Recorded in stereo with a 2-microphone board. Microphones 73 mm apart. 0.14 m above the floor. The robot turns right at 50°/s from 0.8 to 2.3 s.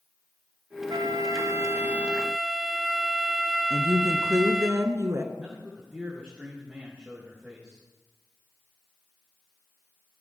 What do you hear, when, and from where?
0.9 s a flute: 75° right, 0.6 m; by 4.7 s 5° right, 0.6 m
3.7 s a woman speaking: 40° right (ahead or behind), 1.5 m
5.3 s a man speaking: 15° right (ahead or behind), 5.5 m